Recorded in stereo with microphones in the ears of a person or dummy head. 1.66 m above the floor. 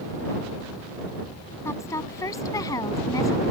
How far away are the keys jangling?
No keys jangling in this recording.